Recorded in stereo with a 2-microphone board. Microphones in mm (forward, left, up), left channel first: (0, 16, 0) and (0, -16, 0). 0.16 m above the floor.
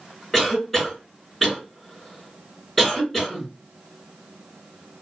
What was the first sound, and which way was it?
A cough, centre (ahead or behind).